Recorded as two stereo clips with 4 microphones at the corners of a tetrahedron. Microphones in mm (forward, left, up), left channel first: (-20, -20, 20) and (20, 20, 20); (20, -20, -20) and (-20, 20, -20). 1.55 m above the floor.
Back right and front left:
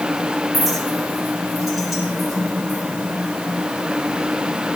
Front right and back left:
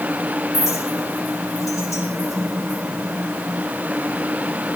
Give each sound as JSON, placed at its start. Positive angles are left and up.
{"t": 0.5, "sound": "a clink", "azimuth_deg": -50, "distance_m": 5.0}